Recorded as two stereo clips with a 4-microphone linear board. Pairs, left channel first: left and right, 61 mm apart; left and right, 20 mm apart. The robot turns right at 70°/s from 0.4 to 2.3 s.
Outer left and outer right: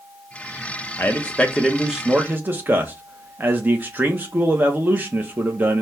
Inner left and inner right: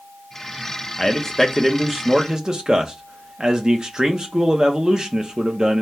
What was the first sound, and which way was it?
A man speaking, 125° left.